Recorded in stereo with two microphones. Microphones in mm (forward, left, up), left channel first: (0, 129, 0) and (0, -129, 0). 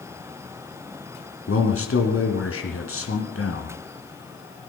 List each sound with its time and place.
1.5 s a man speaking: 60° left (ahead or behind), 2.5 m